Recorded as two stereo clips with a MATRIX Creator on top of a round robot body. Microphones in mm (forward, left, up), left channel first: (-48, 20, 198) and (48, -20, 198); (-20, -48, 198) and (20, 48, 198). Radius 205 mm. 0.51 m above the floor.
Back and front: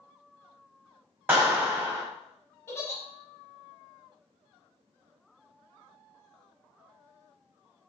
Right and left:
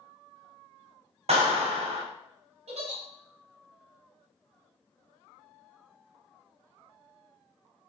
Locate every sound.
1.3 s a clap: 50° left, 1.7 m
2.7 s a giggle: 90° left, 0.9 m